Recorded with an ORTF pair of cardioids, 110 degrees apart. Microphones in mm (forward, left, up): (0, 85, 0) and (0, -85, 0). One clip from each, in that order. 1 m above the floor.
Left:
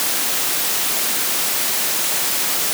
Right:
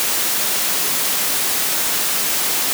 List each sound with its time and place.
Only background noise.